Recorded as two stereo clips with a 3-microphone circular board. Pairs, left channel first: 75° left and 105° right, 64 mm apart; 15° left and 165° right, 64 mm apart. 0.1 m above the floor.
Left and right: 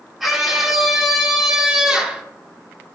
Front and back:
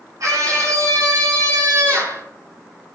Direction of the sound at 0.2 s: 170° left.